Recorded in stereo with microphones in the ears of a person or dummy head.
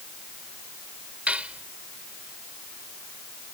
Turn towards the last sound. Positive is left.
turn(degrees=-5)  # may be behind; listen again after turning